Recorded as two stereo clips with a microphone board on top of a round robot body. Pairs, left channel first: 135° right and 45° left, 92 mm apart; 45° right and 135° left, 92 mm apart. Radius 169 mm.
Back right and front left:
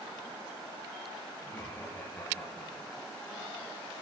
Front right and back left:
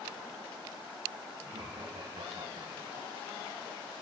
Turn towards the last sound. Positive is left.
turn(degrees=155)